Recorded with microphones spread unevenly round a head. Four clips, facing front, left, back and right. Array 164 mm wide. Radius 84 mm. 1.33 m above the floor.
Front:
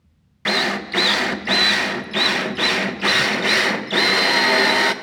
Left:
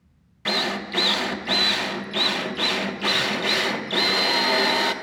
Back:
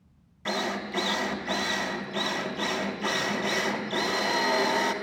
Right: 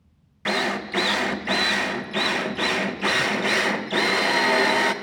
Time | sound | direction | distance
0.5 | a drill | 10° right | 1.0 m